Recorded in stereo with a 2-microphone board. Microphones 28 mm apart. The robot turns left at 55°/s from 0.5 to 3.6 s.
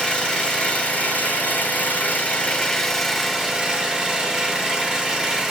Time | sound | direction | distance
0.0 | an engine running | 150° left | 2.5 m